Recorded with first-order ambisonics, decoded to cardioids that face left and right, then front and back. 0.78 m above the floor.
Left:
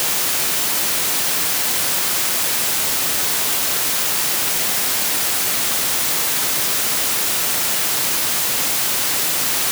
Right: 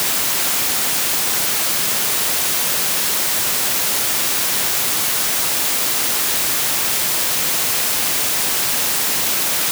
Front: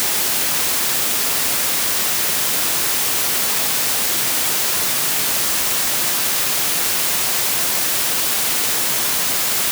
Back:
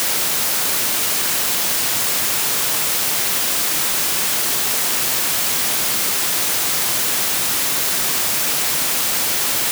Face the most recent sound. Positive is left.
No sound to turn to.